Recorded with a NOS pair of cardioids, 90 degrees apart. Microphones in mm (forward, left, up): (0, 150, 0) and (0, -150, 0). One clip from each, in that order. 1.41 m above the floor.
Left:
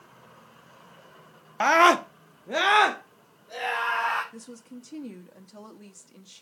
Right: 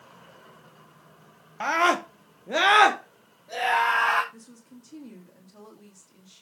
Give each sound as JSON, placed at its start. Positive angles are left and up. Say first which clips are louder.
{"t": 1.6, "sound": "a scream", "louder": "left 4 dB", "azimuth_deg": 40, "distance_m": 0.8}
{"t": 4.3, "sound": "a woman speaking", "louder": "left 6 dB", "azimuth_deg": 40, "distance_m": 2.5}